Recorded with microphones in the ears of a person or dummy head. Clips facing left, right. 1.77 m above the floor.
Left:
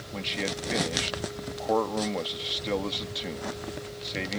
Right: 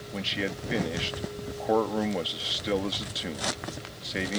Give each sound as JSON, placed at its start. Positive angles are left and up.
{"t": 0.1, "sound": "a man speaking", "side_deg": -10}